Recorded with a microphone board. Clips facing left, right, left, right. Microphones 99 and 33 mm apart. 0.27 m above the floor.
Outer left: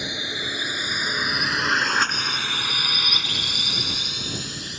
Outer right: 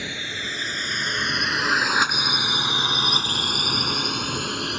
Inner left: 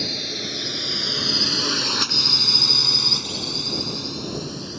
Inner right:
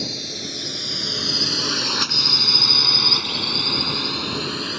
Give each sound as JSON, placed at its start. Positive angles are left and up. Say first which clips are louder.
{"t": 0.0, "sound": "a drone", "louder": "outer left 1 dB, inner left 2 dB", "side_deg": 20}